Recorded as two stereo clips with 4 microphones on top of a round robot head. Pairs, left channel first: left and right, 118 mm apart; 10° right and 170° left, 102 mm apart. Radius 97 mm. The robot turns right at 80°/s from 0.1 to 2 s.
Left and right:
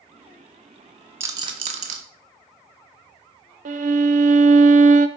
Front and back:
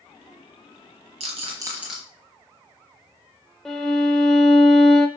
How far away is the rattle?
About 1.3 m.